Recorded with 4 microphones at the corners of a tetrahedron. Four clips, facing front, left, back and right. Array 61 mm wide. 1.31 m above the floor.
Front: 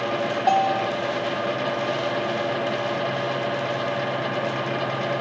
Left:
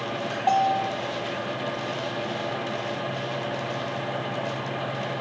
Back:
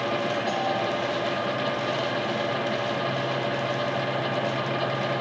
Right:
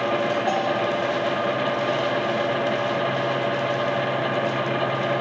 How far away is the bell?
About 2 m.